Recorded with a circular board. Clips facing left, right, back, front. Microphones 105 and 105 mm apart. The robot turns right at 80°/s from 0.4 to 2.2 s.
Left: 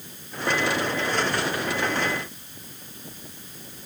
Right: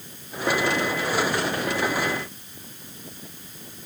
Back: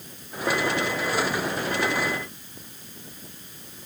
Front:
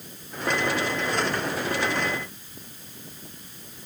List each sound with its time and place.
Only background noise.